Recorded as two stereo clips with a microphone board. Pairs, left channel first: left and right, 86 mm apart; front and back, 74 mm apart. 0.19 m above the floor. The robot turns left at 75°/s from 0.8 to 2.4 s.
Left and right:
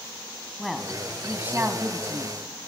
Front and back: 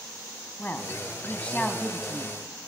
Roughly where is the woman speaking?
Ahead.